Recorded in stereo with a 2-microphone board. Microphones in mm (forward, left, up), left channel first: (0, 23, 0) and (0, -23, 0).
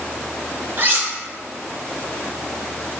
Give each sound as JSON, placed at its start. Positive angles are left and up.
{"t": 0.8, "sound": "cutlery clinking", "side_deg": -40, "distance_m": 1.0}